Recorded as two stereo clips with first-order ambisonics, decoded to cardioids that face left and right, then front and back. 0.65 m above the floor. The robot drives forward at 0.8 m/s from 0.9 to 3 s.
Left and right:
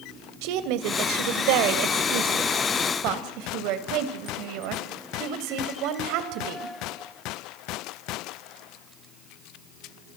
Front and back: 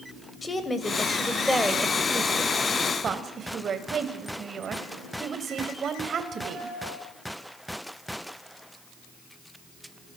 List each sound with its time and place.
0.4 s a woman speaking: 75° right, 2.5 m; by 6.7 s 115° right, 2.5 m